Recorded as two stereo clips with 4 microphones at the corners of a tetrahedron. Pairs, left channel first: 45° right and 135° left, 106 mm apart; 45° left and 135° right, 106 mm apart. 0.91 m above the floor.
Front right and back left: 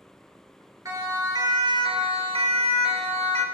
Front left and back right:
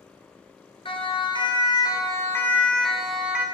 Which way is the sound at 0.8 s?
75° left.